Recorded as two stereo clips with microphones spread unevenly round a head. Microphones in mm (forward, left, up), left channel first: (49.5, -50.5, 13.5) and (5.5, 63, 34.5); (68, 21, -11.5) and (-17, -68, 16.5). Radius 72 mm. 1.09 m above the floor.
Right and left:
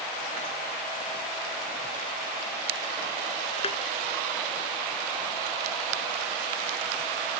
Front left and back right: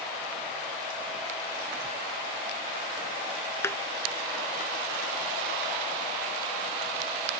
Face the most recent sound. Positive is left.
turn(degrees=-30)